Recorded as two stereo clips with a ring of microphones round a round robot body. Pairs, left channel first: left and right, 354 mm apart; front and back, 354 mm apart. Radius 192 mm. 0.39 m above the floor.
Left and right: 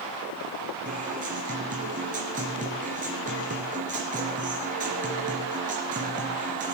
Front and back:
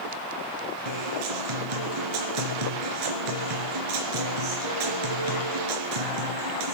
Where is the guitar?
160° right, 2.5 m.